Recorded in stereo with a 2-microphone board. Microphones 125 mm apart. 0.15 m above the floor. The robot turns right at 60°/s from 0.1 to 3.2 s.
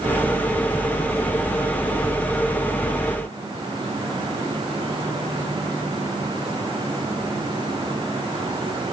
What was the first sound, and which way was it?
Only background noise.